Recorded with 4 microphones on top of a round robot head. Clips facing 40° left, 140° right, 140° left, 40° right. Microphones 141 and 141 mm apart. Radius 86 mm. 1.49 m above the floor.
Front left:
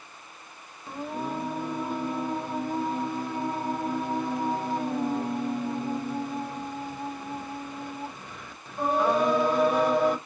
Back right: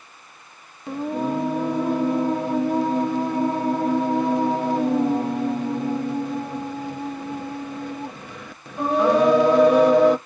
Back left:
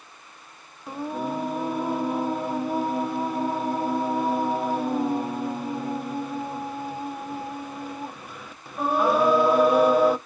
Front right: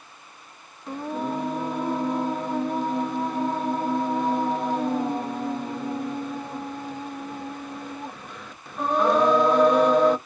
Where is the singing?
140° right, 0.8 m.